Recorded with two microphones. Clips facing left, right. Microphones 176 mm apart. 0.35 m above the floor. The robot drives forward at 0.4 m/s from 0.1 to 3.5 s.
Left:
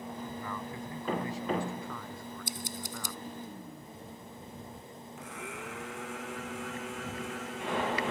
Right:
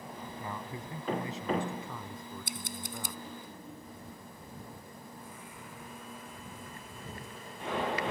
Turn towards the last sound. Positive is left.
turn(degrees=75)  # may be behind; listen again after turning